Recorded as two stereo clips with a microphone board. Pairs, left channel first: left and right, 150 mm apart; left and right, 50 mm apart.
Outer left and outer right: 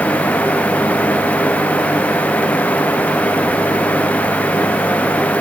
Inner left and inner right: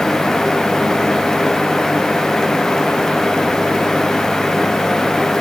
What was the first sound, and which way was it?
Only background noise.